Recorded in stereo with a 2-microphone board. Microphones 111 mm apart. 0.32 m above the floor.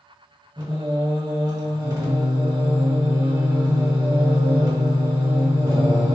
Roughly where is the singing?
Right.